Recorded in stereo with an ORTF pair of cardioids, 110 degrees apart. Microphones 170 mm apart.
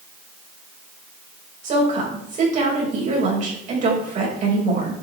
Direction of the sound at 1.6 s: 45° right.